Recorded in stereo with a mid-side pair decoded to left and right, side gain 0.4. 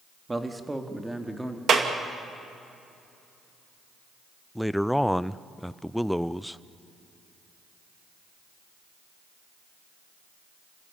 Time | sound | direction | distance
0.3 | a man speaking | 20° right | 2 m
1.7 | a clap | 55° right | 2 m
4.5 | a man speaking | 5° left | 0.6 m